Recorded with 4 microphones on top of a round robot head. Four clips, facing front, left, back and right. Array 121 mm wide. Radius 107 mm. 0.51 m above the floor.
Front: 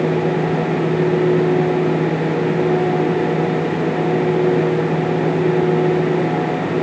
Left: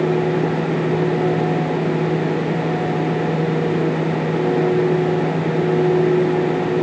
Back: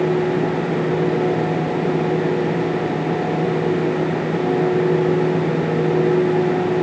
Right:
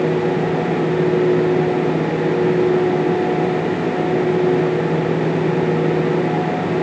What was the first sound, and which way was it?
Only background noise.